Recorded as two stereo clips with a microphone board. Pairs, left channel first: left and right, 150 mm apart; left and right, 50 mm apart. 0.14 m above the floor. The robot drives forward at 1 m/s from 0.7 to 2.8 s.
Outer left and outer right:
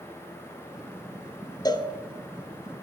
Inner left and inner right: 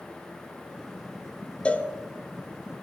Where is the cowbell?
25° left (ahead or behind), 0.7 m; by 1.9 s 30° left (ahead or behind), 0.6 m.